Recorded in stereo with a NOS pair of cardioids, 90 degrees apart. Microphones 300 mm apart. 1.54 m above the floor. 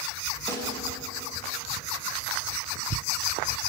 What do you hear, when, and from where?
0.5 s a snare drum: 10° left, 4 m